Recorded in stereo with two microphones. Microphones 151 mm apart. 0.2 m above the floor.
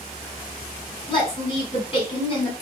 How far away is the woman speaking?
About 1.8 m.